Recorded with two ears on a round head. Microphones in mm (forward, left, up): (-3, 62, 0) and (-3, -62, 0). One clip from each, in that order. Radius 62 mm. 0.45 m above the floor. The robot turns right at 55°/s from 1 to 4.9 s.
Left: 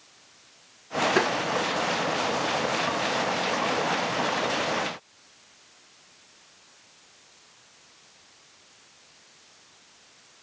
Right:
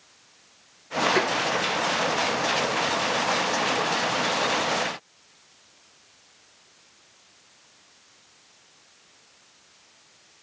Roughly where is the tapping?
Centre.